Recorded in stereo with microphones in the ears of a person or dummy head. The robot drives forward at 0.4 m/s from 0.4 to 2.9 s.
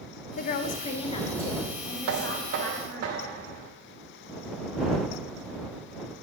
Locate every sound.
0.4 s a woman speaking: 60° left (ahead or behind), 0.5 m; by 3.1 s 20° left (ahead or behind), 1.3 m
2.1 s knocking: 65° right (ahead or behind), 0.5 m; by 3.7 s 40° right (ahead or behind), 0.7 m